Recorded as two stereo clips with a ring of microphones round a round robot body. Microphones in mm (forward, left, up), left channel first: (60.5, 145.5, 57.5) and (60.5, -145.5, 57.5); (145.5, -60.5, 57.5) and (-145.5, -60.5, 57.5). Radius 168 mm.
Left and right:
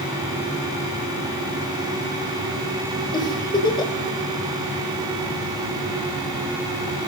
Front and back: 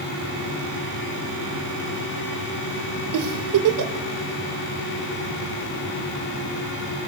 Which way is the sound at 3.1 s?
165° left.